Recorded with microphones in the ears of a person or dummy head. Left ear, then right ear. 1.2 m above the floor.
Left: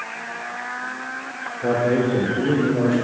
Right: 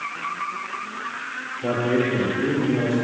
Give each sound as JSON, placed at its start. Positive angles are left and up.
{"t": 1.6, "sound": "a man speaking", "side_deg": 15, "distance_m": 0.9}